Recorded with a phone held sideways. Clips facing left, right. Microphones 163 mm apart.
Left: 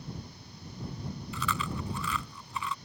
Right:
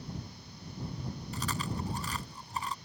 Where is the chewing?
40° right (ahead or behind).